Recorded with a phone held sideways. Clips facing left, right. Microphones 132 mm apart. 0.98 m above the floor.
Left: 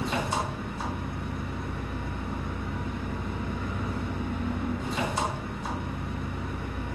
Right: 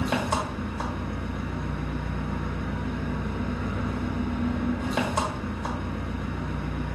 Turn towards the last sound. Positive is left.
turn(degrees=-60)  # may be behind; listen again after turning